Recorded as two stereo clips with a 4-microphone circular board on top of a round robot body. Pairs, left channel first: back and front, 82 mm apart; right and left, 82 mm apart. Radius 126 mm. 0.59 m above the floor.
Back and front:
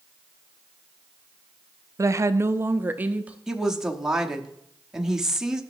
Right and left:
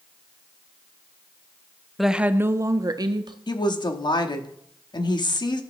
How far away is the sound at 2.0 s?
About 0.6 m.